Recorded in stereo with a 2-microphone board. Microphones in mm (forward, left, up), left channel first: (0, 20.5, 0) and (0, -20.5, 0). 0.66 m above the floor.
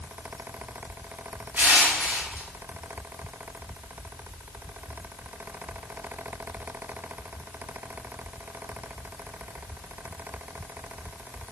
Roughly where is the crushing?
Right.